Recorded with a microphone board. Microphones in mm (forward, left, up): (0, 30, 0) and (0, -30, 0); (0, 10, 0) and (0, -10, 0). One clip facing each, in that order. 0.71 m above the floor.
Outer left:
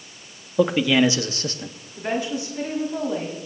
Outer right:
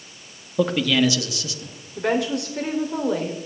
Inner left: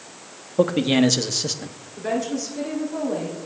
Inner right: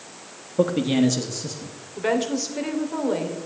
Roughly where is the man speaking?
Centre.